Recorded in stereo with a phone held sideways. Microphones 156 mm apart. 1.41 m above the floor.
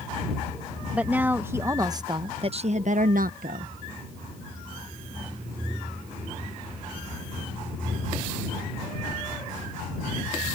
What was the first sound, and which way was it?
A woman speaking, 10° right (ahead or behind).